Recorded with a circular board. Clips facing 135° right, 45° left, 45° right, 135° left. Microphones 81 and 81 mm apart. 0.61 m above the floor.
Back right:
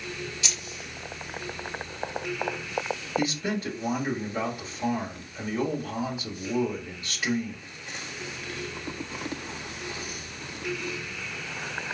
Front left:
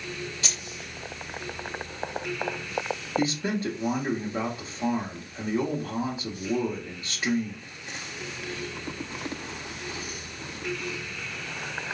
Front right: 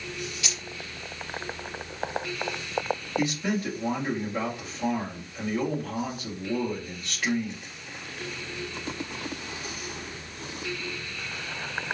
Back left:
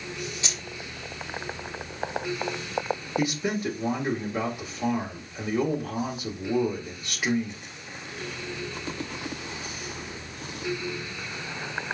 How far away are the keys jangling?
About 0.8 m.